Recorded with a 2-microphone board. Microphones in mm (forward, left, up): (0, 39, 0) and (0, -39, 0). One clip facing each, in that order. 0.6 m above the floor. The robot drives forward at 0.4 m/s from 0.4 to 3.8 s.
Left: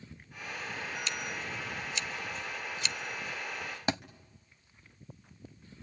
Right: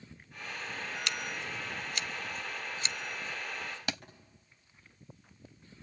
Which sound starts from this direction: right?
Scissors, at 1.1 s.